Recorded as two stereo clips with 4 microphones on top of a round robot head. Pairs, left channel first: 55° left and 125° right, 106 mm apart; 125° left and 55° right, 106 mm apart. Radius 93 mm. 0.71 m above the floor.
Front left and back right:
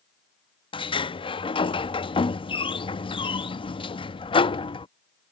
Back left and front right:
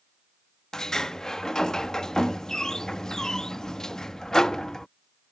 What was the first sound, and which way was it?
A sliding door, 40° left.